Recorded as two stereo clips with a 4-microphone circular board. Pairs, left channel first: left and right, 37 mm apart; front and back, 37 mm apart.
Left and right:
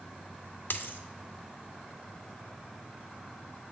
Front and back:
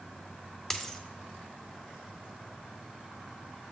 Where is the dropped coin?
80° left, 0.6 m.